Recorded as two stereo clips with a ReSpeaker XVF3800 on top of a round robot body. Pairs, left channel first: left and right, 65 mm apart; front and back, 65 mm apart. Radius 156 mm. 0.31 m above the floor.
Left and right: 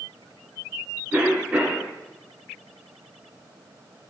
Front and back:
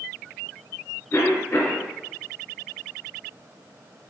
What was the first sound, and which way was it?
A cough, 30° right.